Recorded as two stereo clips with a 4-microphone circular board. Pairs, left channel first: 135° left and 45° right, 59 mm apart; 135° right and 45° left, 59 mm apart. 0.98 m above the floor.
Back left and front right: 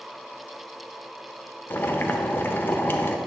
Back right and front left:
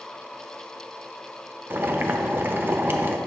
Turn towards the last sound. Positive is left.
turn(degrees=90)